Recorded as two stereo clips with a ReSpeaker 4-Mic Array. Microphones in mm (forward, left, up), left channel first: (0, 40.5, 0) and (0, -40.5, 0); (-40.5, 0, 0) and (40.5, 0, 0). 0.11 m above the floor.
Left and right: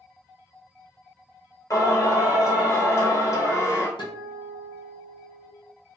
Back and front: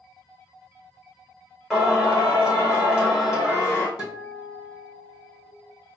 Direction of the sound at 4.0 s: 75° left.